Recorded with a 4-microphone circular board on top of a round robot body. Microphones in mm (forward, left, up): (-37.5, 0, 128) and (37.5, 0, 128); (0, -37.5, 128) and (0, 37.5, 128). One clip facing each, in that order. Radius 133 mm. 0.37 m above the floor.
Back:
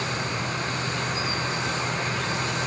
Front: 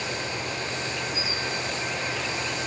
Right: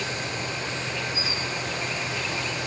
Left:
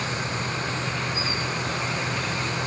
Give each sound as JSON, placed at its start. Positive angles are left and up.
{"t": 0.0, "sound": "an insect", "azimuth_deg": 140}